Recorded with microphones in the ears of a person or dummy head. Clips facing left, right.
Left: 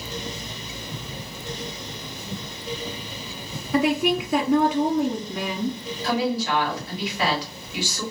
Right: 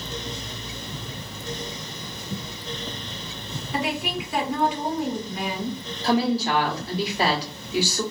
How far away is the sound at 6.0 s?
About 1.4 m.